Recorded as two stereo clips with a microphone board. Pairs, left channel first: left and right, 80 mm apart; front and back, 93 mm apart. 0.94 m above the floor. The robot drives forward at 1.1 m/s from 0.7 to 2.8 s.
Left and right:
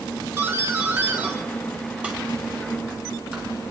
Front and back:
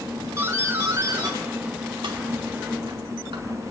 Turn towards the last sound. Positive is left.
turn(degrees=-170)